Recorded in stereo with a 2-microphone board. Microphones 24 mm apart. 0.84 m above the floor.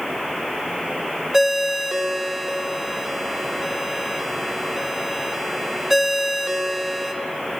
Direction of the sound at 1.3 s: 10° right (ahead or behind).